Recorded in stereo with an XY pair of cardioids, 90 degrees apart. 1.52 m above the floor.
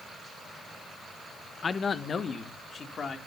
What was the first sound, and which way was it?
A man speaking, 45° left.